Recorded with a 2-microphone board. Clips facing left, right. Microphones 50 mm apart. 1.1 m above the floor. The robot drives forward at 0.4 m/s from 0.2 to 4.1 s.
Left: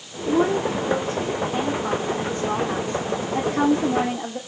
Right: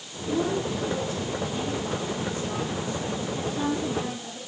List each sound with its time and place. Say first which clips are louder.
0.2 s a woman speaking: left 6 dB; 50° left (ahead or behind), 3 m; by 4.4 s 80° left, 2.5 m